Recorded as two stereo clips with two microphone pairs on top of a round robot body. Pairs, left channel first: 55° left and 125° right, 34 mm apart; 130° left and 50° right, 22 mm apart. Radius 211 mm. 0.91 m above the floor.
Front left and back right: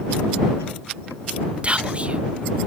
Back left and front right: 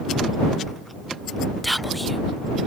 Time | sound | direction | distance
1.6 | whispering | 145° right | ?